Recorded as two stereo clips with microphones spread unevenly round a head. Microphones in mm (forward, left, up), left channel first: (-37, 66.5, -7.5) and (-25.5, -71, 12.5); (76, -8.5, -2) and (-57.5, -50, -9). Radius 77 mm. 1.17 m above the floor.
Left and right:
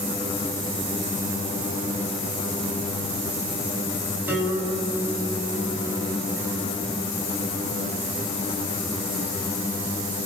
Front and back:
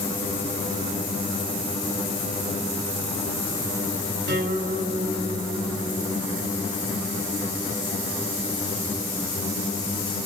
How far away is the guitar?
About 7.5 m.